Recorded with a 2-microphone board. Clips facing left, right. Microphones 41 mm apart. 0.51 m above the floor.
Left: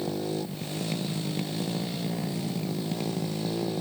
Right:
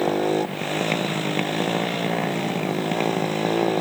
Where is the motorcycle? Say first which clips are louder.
Right 10 dB; 55° right (ahead or behind).